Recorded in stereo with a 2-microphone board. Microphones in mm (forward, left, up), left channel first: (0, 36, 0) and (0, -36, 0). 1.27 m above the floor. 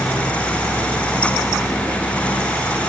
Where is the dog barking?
No dog barking in this recording.